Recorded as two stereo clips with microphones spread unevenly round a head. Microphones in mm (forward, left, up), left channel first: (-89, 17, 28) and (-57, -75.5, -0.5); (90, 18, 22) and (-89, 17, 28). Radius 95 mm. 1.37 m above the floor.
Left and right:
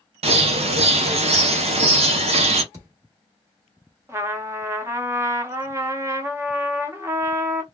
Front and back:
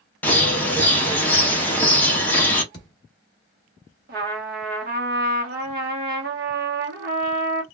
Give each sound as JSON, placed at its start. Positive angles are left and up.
{"t": 0.2, "sound": "a bird", "azimuth_deg": -80, "distance_m": 0.6}
{"t": 2.7, "sound": "a thud", "azimuth_deg": -15, "distance_m": 0.9}
{"t": 4.1, "sound": "a trumpet", "azimuth_deg": -140, "distance_m": 0.8}